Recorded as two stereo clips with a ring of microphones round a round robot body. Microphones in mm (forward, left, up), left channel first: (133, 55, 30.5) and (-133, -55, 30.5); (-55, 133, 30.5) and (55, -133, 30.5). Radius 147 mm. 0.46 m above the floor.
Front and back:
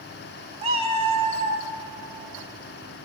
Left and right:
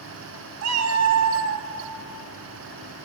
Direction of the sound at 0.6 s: 90° right.